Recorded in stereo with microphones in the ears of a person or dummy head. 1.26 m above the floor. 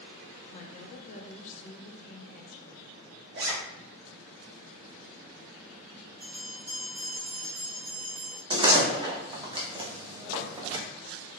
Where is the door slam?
25° right (ahead or behind), 0.6 m.